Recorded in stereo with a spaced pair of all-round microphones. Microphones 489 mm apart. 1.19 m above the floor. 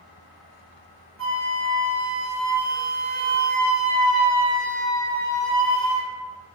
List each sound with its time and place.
1.2 s a flute: 45° right (ahead or behind), 1.7 m